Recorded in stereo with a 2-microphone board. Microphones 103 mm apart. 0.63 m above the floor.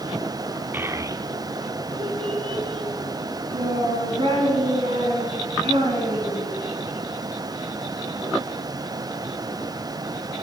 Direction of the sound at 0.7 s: 20° right (ahead or behind).